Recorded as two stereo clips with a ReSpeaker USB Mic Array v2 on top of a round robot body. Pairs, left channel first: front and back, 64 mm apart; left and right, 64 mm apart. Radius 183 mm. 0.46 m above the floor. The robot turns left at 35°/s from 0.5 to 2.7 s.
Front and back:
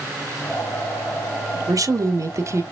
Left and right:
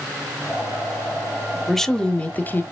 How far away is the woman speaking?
About 1.4 m.